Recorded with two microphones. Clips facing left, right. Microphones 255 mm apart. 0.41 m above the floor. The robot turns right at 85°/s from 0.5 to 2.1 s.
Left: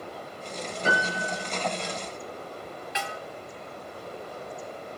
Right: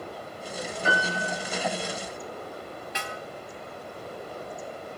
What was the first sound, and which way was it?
A piano, 140° left.